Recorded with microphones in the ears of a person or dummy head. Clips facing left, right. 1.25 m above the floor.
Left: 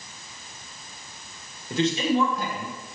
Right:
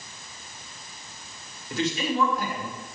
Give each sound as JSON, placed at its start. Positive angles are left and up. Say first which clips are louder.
{"t": 1.7, "sound": "a man speaking", "louder": "left 4 dB", "side_deg": 20, "distance_m": 1.5}